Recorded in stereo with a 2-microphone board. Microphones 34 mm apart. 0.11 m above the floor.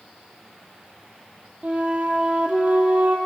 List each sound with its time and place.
1.6 s a flute: 45° right (ahead or behind), 0.7 m